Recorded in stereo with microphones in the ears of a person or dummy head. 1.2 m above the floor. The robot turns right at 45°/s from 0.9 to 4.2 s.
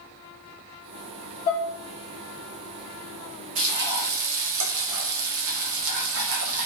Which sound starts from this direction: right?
Frying, at 3.5 s.